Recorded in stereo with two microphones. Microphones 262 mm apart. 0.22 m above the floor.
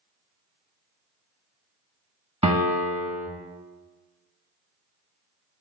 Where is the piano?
25° right (ahead or behind), 0.9 m.